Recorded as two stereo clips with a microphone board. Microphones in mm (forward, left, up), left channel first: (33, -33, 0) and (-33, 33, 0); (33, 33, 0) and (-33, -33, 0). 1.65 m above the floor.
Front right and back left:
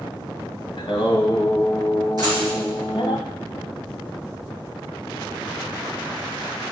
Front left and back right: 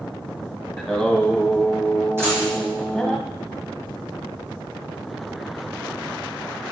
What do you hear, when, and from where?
0.8 s singing: 45° right, 0.9 m
2.2 s a dropped coin: 165° left, 3 m